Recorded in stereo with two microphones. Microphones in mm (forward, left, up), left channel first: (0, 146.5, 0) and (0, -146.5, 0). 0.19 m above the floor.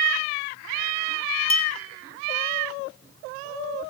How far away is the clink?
About 0.6 m.